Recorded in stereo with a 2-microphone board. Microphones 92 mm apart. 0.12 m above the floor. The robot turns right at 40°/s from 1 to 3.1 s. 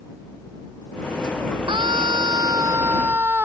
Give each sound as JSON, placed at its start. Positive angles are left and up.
{"t": 1.7, "sound": "a scream", "azimuth_deg": -80}